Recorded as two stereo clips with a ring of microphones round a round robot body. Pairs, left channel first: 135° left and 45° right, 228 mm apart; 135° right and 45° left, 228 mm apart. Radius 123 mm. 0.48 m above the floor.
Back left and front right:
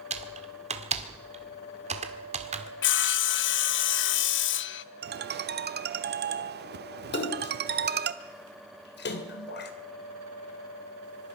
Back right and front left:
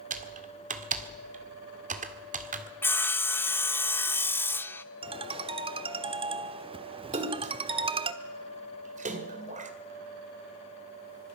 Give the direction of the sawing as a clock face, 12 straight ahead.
7 o'clock.